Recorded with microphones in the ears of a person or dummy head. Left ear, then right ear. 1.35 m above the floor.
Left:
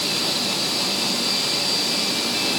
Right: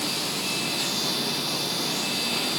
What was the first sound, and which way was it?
Only background noise.